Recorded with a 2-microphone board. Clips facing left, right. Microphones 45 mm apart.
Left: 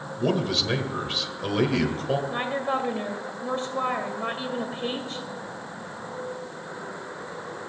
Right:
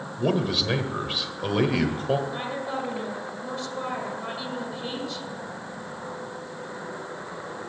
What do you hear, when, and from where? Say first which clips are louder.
0.2 s a man speaking: even; 10° right (ahead or behind), 1.2 m
2.3 s a woman speaking: left 4 dB; 40° left (ahead or behind), 1.8 m